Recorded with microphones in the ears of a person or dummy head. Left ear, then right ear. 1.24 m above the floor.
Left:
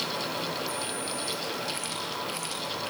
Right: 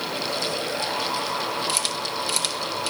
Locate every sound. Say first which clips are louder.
1.7 s a camera shutter: right 7 dB; 85° right, 8 m